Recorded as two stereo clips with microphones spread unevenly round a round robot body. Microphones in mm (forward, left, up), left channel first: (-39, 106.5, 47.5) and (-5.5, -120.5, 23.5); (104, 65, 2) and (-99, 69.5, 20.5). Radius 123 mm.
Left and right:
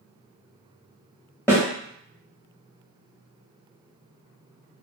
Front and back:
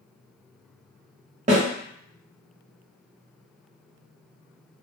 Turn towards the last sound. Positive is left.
turn(degrees=180)